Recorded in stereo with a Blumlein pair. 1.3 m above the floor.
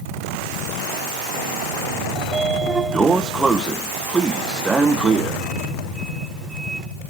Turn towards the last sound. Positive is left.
turn(degrees=-10)